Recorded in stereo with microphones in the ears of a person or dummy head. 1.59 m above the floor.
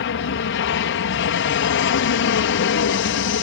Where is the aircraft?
55° left (ahead or behind).